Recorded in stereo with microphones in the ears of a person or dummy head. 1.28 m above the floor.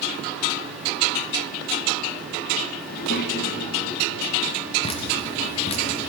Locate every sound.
2.9 s a child speaking: 50° left (ahead or behind), 1.0 m; by 4.7 s 75° left (ahead or behind), 3 m
4.8 s dripping: 35° left (ahead or behind), 1.2 m